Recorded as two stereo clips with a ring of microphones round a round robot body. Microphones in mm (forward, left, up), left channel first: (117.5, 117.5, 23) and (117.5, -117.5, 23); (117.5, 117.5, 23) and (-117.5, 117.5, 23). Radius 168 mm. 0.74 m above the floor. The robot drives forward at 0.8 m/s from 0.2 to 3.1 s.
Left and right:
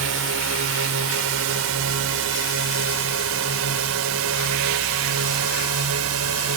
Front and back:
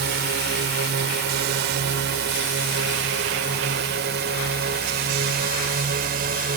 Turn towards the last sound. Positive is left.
turn(degrees=-120)